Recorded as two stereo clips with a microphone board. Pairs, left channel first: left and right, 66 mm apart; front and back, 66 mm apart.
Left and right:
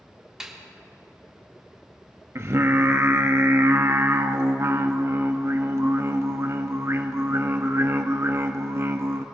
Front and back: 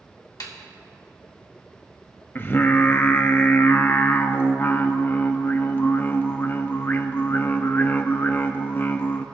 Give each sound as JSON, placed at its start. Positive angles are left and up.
{"t": 0.4, "sound": "a snare drum", "azimuth_deg": -10, "distance_m": 1.6}
{"t": 2.4, "sound": "singing", "azimuth_deg": -50, "distance_m": 0.6}